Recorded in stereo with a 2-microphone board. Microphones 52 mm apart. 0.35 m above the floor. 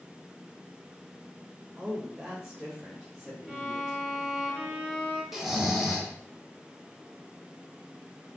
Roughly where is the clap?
No clap in this recording.